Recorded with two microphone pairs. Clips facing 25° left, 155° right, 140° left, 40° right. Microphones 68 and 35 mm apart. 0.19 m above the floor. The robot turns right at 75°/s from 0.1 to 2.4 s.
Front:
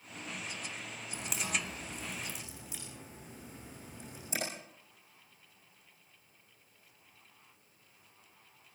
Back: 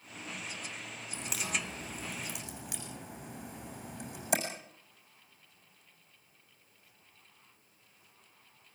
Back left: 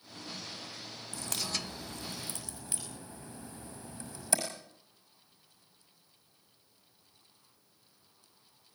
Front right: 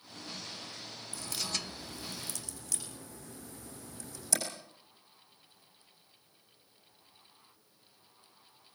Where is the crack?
105° left, 7 m; by 4.4 s 160° right, 7 m.